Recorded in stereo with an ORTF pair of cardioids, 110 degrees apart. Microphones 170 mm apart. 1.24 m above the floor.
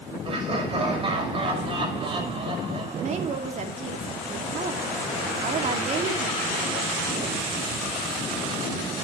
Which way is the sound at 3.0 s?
45° right.